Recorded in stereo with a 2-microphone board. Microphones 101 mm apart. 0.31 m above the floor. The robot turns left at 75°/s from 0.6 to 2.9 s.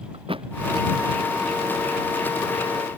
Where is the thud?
65° right (ahead or behind).